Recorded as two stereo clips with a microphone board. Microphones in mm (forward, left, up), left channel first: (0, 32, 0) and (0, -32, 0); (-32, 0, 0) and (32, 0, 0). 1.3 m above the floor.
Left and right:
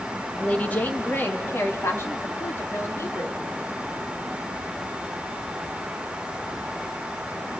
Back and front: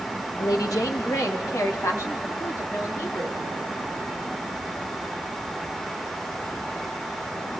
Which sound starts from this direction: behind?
A woman speaking, at 0.4 s.